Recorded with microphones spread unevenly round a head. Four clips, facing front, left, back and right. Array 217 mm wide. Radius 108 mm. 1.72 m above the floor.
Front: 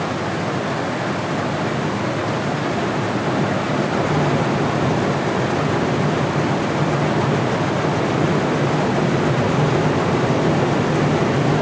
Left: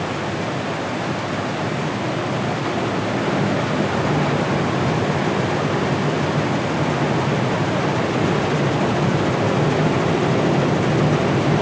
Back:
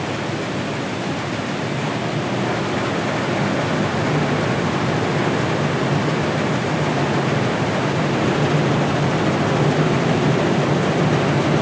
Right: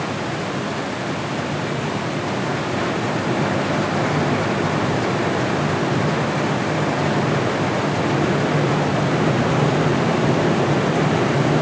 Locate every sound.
Only background noise.